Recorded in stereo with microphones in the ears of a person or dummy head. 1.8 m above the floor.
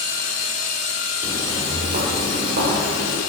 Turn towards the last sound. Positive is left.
turn(degrees=-50)  # may be behind; listen again after turning